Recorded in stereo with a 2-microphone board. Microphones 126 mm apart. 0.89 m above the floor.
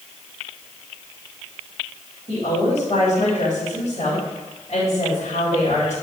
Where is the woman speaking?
55° left (ahead or behind), 3 m.